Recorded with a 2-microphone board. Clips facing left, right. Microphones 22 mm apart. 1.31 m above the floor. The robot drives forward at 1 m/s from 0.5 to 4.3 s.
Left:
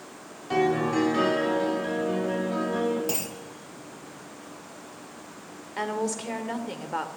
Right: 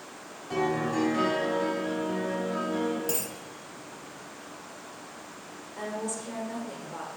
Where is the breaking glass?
No breaking glass in this recording.